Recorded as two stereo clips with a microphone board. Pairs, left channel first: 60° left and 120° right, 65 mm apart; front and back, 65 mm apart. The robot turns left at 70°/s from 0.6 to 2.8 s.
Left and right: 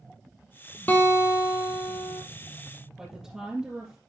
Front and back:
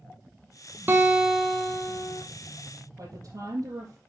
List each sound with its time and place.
0.9 s a guitar: 125° left, 1.6 m; by 2.2 s 30° left, 1.6 m
3.0 s a woman speaking: 165° left, 3.5 m